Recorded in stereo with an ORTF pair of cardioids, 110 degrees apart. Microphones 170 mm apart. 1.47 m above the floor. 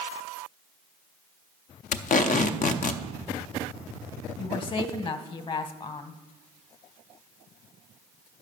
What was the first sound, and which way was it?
Tape being pulled, 55° left.